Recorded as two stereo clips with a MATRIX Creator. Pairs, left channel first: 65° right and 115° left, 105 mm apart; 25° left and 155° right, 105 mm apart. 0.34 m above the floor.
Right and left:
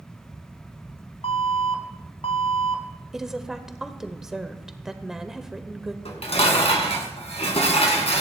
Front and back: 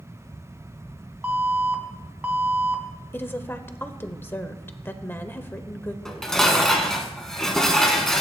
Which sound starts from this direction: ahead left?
A woman speaking, at 3.1 s.